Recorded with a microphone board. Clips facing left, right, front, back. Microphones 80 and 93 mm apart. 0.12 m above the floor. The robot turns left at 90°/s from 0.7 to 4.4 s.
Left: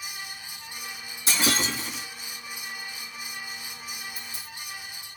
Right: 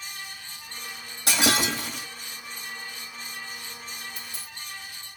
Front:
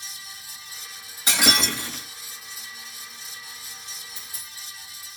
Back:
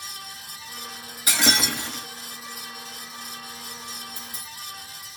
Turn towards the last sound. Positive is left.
turn(degrees=115)